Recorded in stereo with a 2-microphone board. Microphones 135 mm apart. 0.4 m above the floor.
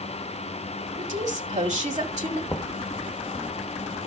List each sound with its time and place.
1.0 s a woman speaking: 60° right (ahead or behind), 2 m
2.5 s knocking: 20° left (ahead or behind), 0.6 m